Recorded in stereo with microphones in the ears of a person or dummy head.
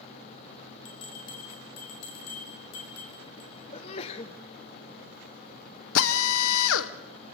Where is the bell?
85° left, 6.5 m.